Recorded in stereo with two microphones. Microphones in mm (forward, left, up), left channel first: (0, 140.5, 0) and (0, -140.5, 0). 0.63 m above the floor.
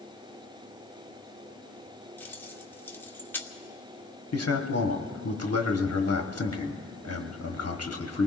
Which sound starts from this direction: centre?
Keys jangling, at 2.2 s.